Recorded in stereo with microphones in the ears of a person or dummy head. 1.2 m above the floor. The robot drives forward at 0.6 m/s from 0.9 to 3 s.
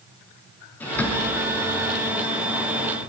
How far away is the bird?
About 3 m.